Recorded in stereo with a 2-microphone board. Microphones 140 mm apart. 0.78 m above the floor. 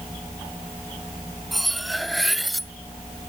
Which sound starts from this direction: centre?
Cutlery clinking, at 1.5 s.